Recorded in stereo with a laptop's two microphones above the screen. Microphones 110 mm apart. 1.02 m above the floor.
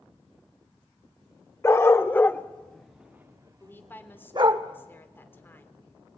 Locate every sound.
1.6 s a dog barking: 25° left (ahead or behind), 1.2 m; by 4.6 s 45° right (ahead or behind), 1.1 m
3.6 s a woman speaking: 20° left (ahead or behind), 3.5 m